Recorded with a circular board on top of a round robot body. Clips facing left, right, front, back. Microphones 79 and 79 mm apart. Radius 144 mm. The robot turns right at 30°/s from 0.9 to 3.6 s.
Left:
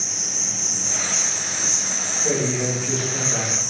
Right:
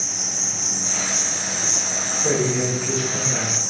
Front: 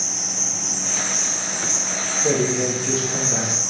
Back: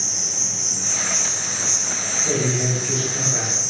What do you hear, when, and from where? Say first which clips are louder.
0.0 s an insect: right 2 dB, front 2 dB; 150° left, 1.8 m; by 3.7 s 130° right, 1.8 m
2.2 s a man speaking: right 2 dB, front 3 dB; 25° right, 1.6 m; by 3.7 s 15° left, 1.6 m